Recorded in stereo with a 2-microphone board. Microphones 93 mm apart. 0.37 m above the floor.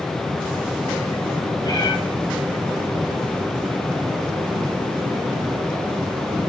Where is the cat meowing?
45° left (ahead or behind), 3 m.